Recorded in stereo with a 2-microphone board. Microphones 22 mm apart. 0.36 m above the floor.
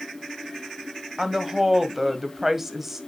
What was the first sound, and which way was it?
A woman speaking, 10° right (ahead or behind).